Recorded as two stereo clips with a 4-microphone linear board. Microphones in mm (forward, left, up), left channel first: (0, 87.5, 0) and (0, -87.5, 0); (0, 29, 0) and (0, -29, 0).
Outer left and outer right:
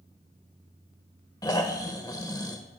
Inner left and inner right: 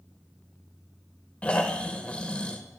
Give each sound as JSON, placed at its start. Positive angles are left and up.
{"t": 1.4, "sound": "snoring", "side_deg": 20, "distance_m": 0.9}